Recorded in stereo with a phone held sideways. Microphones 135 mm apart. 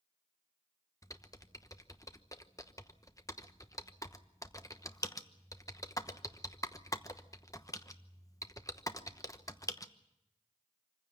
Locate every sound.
1.0 s typing on a keyboard: 25° left (ahead or behind), 1.0 m